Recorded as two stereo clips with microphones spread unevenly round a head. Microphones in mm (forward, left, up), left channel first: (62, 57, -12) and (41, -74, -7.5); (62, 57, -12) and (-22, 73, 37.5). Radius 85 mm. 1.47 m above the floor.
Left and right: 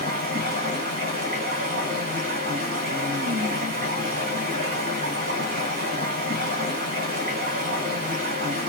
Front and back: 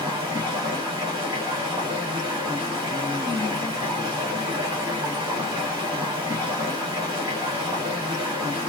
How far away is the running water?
About 2 m.